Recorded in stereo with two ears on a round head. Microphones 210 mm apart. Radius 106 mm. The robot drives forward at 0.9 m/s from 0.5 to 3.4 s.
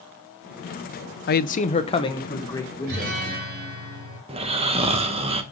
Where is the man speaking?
45° left (ahead or behind), 0.6 m; by 3.3 s 10° left (ahead or behind), 2 m.